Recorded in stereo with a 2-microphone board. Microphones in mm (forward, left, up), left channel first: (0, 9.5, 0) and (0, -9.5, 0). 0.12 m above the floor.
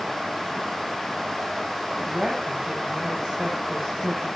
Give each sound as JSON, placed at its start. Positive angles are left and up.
{"t": 2.1, "sound": "a woman speaking", "side_deg": -60, "distance_m": 7.0}